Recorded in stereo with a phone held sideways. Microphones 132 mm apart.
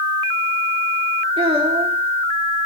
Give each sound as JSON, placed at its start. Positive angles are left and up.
{"t": 1.4, "sound": "a child speaking", "side_deg": -45, "distance_m": 1.6}